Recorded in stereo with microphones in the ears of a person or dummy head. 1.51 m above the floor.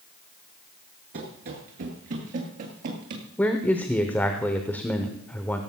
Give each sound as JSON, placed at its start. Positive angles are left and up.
{"t": 1.1, "sound": "running footsteps", "side_deg": -30, "distance_m": 1.6}
{"t": 3.4, "sound": "a man speaking", "side_deg": 5, "distance_m": 0.8}